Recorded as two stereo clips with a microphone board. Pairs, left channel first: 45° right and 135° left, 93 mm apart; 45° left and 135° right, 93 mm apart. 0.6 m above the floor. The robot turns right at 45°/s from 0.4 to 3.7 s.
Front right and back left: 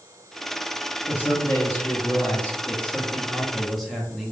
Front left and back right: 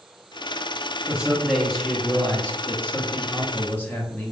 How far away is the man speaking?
About 0.8 m.